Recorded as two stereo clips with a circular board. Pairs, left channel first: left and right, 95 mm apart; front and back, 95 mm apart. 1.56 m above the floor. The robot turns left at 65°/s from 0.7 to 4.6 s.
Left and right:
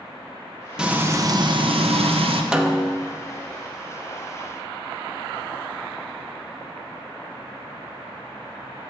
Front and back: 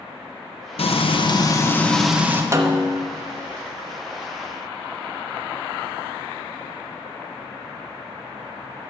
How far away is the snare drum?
About 0.8 m.